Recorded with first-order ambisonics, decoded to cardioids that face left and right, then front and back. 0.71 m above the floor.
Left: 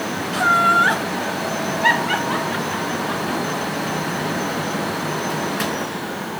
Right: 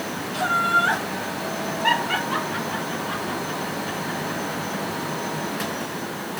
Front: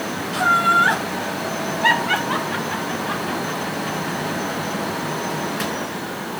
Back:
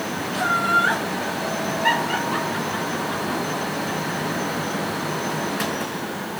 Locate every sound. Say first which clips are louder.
0.3 s laughter: left 5 dB, front 4 dB; 60° left, 3 m; by 4.8 s 25° left, 5.5 m